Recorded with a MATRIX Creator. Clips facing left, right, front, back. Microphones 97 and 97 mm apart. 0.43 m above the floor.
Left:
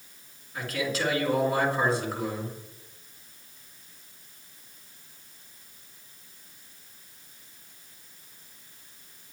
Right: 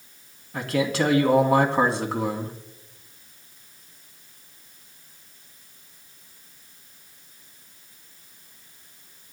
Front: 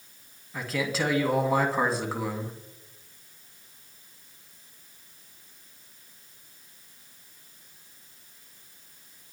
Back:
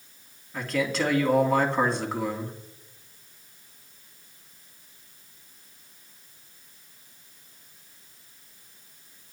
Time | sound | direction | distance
0.5 | a man speaking | 85° right | 3 m